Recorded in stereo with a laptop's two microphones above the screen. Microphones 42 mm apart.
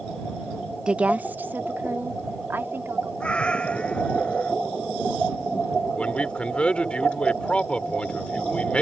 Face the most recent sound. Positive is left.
turn(degrees=25)  # may be behind; listen again after turning